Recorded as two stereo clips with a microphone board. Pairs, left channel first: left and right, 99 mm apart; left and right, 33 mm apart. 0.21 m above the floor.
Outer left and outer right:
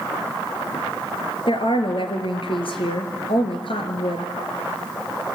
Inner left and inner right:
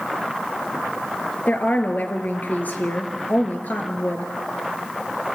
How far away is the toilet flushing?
No toilet flushing in this recording.